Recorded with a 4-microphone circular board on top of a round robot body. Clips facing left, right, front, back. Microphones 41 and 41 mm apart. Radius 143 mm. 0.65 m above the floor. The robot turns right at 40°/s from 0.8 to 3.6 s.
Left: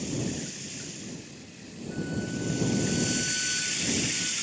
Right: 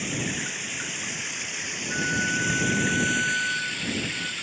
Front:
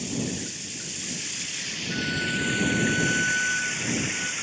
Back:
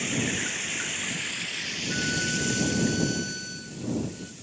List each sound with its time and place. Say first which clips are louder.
0.0 s running water: right 3 dB, back 3 dB; 130° right; by 4.4 s 15° right
1.9 s a violin: right 7 dB, front 2 dB; 95° right; by 4.3 s 30° right